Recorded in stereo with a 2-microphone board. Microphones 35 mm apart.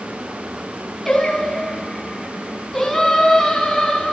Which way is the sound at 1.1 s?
10° left (ahead or behind).